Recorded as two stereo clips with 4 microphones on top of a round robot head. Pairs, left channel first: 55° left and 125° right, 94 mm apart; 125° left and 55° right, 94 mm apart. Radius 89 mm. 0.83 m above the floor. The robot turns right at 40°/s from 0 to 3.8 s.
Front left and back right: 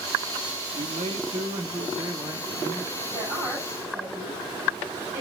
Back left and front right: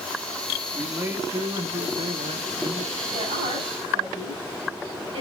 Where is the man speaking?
130° right, 1.5 m; by 3.0 s 40° right, 1.5 m.